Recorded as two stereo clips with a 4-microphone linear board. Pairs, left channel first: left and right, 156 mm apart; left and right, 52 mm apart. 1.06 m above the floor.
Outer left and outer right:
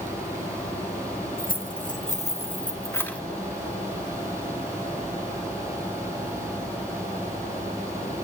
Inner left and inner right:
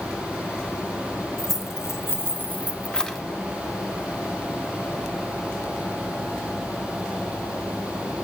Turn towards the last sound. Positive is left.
turn(degrees=5)  # may be behind; listen again after turning